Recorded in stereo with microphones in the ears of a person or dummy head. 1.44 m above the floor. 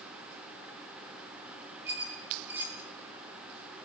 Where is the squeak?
10° right (ahead or behind), 0.8 m.